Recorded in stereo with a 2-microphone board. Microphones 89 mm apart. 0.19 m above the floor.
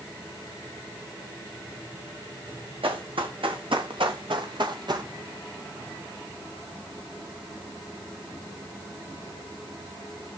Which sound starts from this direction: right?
Running footsteps, at 2.8 s.